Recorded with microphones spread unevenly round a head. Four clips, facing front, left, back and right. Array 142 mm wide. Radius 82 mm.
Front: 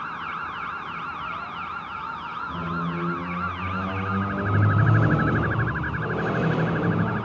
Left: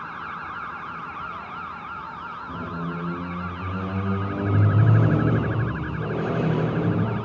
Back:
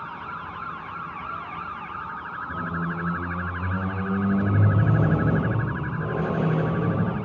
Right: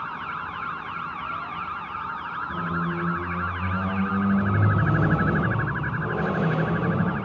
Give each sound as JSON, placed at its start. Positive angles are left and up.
{"t": 2.5, "sound": "a squeak", "azimuth_deg": 105, "distance_m": 4.5}